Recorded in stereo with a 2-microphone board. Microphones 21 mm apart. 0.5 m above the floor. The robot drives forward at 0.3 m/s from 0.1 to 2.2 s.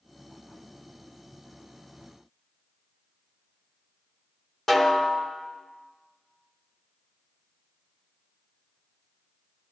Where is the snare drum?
20° left (ahead or behind), 1.3 m.